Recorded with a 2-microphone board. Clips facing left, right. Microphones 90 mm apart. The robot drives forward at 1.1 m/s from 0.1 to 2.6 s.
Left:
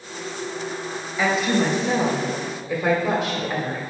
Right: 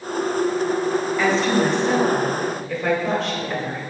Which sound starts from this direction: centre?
A woman speaking, at 1.2 s.